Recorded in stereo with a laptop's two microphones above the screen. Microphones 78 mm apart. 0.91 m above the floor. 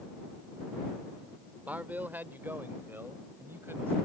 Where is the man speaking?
20° right (ahead or behind); by 4.0 s 30° right (ahead or behind).